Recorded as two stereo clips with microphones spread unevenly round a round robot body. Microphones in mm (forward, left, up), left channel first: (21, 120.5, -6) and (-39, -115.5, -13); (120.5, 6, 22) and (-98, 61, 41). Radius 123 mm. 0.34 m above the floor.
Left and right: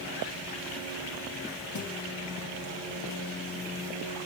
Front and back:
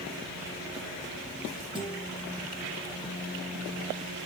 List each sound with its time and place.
1.8 s a guitar: 95° left, 5 m